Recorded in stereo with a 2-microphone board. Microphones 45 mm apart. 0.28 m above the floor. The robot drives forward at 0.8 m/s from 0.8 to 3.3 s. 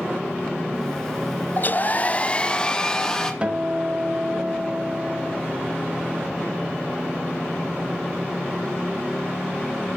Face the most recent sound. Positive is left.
turn(degrees=-25)  # may be behind; listen again after turning